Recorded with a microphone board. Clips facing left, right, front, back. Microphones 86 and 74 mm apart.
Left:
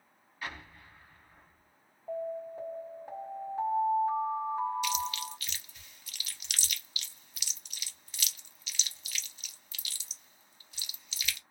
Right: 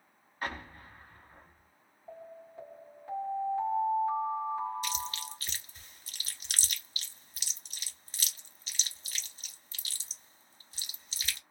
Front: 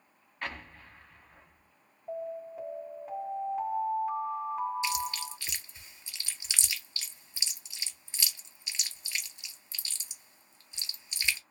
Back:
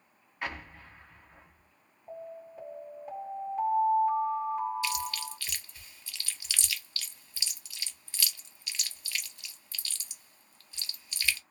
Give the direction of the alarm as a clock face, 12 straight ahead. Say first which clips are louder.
Left 12 dB, front 6 dB; 9 o'clock.